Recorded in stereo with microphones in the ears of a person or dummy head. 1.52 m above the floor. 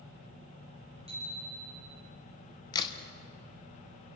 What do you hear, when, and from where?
1.1 s a bicycle bell: 40° right (ahead or behind), 6.5 m
2.7 s a crack: 30° left (ahead or behind), 1.4 m